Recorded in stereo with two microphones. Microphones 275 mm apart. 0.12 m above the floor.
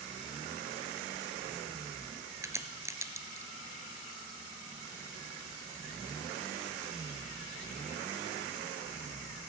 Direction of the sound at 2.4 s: 10° right (ahead or behind).